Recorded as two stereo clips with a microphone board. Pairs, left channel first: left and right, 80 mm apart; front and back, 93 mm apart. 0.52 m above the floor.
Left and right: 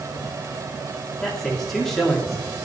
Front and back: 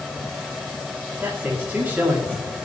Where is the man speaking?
165° left, 1.2 m.